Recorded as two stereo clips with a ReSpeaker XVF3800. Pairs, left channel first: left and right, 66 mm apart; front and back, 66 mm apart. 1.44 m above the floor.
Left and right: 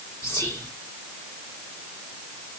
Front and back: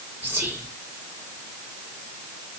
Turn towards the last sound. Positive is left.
turn(degrees=115)